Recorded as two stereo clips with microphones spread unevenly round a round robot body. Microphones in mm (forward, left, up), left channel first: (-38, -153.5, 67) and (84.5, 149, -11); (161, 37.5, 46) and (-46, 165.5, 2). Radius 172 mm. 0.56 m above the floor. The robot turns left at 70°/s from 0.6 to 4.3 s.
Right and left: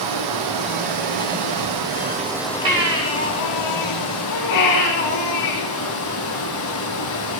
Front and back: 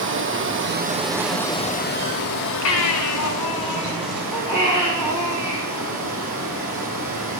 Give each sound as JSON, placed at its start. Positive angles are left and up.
{"t": 0.0, "sound": "running water", "azimuth_deg": 105, "distance_m": 4.0}
{"t": 2.6, "sound": "a baby crying", "azimuth_deg": -10, "distance_m": 4.5}